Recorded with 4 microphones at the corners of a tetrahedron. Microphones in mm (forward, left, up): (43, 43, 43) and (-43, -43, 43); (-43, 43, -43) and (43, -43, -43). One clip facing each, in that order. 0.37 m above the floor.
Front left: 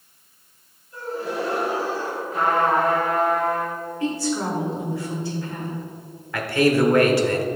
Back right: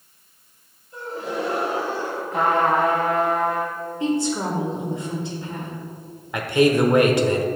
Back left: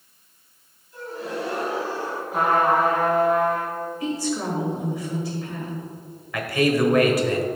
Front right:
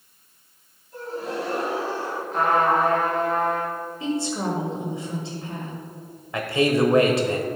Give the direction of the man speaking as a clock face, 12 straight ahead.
3 o'clock.